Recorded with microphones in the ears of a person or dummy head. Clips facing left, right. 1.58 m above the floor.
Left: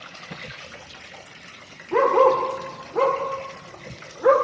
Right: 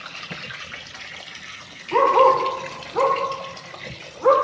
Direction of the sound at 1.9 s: 10° left (ahead or behind).